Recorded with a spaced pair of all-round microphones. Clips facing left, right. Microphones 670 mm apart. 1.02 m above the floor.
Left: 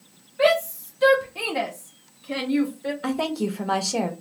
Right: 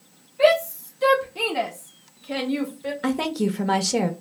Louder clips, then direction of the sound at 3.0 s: Right 3 dB; 50° right (ahead or behind).